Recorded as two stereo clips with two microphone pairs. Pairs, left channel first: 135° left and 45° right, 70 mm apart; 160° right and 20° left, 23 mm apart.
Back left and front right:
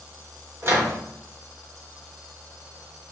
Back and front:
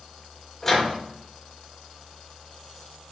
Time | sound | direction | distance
0.6 | a microwave | 85° right | 1.6 m